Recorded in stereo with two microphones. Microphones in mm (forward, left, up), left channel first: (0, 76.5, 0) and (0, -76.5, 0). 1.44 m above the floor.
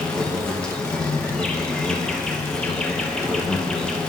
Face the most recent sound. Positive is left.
turn(degrees=5)  # may be behind; listen again after turning